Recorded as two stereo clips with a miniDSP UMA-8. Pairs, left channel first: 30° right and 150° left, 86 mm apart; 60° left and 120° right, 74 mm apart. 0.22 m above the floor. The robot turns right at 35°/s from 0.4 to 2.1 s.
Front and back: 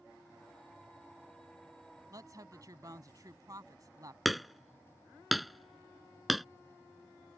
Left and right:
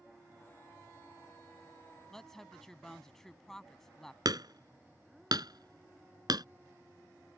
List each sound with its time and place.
2.1 s a woman speaking: 140° left
4.2 s hammering: 120° right